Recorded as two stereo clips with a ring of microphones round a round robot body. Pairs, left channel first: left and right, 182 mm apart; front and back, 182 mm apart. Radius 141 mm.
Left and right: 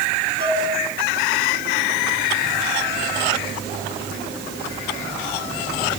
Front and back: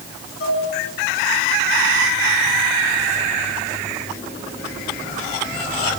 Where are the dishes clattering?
30° right, 4.5 m.